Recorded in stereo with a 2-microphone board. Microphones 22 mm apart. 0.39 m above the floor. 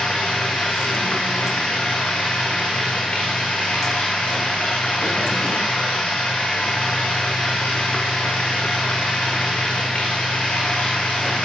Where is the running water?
80° left, 8 m.